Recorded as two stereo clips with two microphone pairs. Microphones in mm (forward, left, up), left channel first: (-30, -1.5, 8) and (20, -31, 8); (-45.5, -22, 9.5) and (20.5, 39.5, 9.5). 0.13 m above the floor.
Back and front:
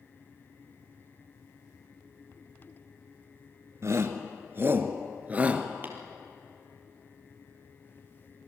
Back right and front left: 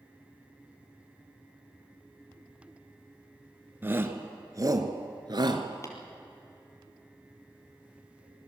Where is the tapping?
85° right, 3.5 m.